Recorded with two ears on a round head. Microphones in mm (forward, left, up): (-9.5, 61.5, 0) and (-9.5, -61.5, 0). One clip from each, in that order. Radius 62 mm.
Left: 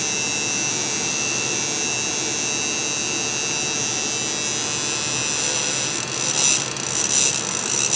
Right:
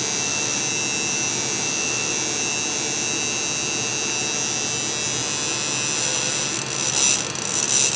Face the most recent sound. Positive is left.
No sound to turn to.